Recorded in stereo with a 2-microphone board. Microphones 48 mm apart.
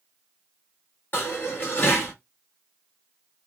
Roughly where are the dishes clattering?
Left.